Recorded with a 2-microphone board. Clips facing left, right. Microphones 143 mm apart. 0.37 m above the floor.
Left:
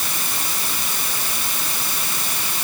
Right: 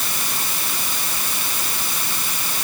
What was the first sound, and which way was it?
Only background noise.